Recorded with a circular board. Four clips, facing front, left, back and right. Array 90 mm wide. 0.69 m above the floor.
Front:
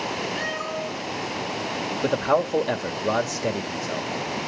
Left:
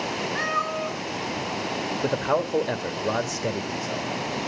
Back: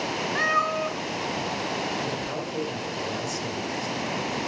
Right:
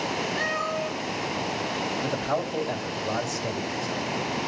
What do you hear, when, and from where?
0.3 s a cat meowing: 150° left, 5 m
2.0 s a man speaking: 35° left, 2 m